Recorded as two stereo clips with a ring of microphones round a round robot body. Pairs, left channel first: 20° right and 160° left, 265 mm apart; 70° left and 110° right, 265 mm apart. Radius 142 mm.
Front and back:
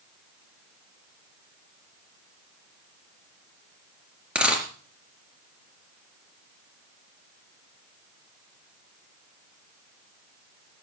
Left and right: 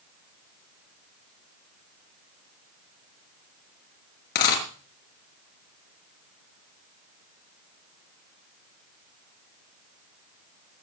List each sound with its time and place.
4.3 s a dropped coin: 70° left, 3.5 m